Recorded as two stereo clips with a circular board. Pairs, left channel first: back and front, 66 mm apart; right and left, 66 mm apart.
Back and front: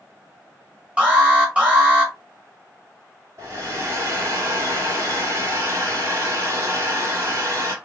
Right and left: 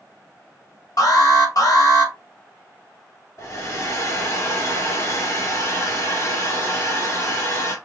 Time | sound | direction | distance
1.0 | an alarm | 70° right | 1.8 m
3.4 | a hair dryer | 45° right | 2 m